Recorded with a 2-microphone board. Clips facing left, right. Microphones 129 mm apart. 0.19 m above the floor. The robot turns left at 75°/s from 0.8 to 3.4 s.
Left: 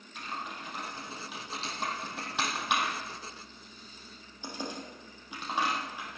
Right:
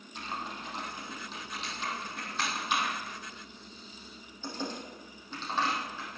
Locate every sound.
0.1 s typing on a keyboard: 30° right (ahead or behind), 4.5 m; by 6.2 s 15° left (ahead or behind), 4.5 m